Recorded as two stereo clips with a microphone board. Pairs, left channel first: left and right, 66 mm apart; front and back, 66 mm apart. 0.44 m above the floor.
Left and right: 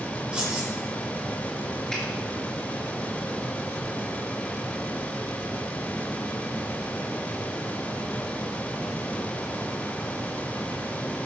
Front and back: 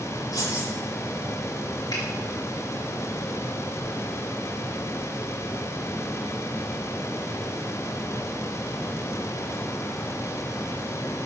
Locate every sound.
0.3 s keys jangling: 15° right, 7 m
1.9 s a finger snap: 10° left, 4.5 m